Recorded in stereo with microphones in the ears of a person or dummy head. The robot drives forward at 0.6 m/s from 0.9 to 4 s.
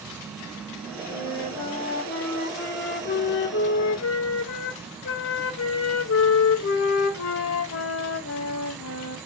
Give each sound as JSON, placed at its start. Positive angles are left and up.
{"t": 1.1, "sound": "a flute", "side_deg": 30, "distance_m": 2.0}